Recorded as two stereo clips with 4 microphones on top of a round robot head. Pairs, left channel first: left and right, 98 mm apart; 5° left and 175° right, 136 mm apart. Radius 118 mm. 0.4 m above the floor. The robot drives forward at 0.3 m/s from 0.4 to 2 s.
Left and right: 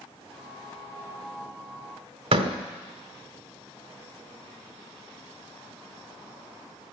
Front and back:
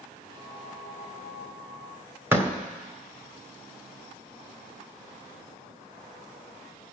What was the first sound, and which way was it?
A door slam, 105° right.